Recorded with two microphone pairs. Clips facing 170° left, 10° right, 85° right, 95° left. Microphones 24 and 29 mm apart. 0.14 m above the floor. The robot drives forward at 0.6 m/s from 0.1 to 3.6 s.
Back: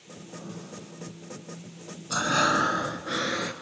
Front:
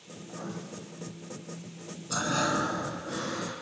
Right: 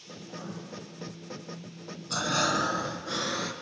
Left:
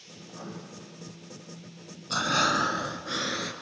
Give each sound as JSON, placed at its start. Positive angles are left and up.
{"t": 0.2, "sound": "writing", "azimuth_deg": 40, "distance_m": 4.0}
{"t": 2.1, "sound": "breathing", "azimuth_deg": 130, "distance_m": 0.6}